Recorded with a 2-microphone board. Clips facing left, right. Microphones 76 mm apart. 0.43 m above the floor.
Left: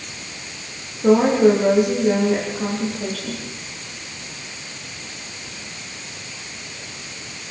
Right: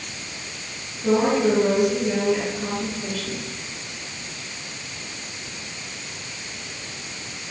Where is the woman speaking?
50° left (ahead or behind), 9.5 m.